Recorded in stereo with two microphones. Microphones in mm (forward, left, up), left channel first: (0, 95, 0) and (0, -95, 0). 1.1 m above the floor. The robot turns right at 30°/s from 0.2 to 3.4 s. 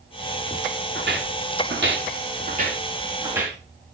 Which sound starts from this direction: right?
Footsteps, at 0.9 s.